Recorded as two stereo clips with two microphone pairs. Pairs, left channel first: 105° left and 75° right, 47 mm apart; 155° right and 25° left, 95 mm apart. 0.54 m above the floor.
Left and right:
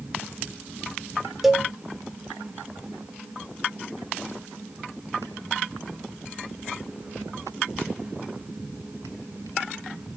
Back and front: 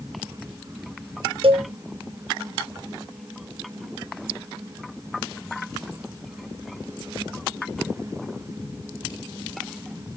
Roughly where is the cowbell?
Ahead.